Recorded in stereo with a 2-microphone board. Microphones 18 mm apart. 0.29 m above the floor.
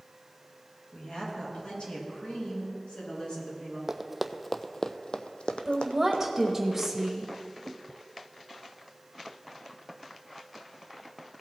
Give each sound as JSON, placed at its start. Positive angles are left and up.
{"t": 0.9, "sound": "a woman speaking", "side_deg": 50, "distance_m": 3.5}
{"t": 3.9, "sound": "running footsteps", "side_deg": -15, "distance_m": 0.7}
{"t": 5.7, "sound": "a woman speaking", "side_deg": -10, "distance_m": 0.9}